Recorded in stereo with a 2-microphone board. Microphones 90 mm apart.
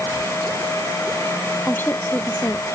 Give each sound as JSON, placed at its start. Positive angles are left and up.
{"t": 1.7, "sound": "a woman speaking", "side_deg": 25}